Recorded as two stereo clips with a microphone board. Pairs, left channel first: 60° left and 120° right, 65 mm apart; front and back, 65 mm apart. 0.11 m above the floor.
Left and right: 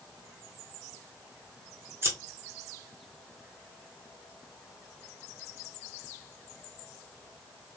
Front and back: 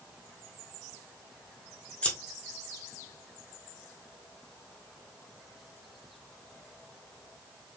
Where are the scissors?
70° right, 2.0 m.